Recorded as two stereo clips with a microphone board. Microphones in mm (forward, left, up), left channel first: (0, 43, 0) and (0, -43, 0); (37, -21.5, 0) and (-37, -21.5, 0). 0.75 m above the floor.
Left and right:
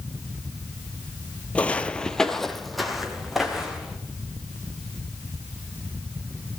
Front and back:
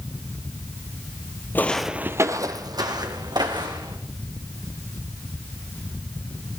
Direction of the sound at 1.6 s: 25° left.